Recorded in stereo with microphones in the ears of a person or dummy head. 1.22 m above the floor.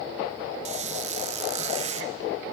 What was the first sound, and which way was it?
A squeak, 40° right (ahead or behind).